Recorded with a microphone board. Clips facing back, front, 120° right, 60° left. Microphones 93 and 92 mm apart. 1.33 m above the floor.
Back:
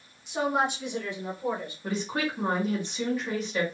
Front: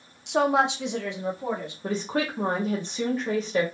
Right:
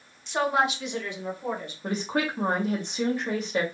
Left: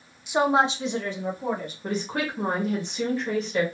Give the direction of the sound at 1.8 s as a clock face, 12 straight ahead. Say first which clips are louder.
Front 3 dB, right 1 dB; 2 o'clock.